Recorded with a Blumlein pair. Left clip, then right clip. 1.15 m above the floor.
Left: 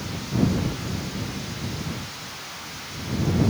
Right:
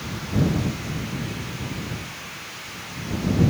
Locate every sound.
Only background noise.